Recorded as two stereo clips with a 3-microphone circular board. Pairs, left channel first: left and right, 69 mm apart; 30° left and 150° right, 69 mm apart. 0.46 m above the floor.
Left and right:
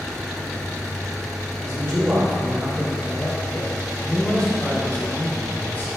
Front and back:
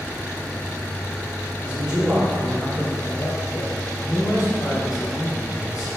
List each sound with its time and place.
1.6 s a man speaking: 75° right, 1.9 m; by 5.9 s 35° left, 4 m